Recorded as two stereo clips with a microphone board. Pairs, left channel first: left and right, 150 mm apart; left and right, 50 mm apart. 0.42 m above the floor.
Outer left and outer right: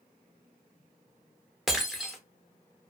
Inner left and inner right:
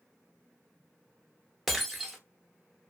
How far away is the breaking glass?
About 0.6 m.